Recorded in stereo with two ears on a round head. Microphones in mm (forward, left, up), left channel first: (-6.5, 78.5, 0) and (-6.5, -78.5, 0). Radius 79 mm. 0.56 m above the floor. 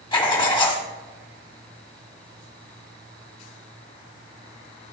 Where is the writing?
25° left (ahead or behind), 1.3 m.